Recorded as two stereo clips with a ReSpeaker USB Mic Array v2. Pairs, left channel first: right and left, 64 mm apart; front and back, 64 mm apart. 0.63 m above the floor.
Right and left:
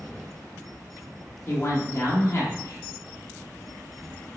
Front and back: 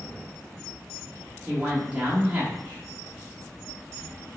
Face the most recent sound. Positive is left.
turn(degrees=-120)